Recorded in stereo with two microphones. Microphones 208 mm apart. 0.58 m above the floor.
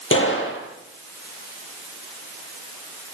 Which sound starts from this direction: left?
A gunshot, at 0.1 s.